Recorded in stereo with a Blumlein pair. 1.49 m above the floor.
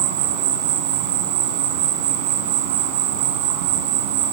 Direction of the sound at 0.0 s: 50° right.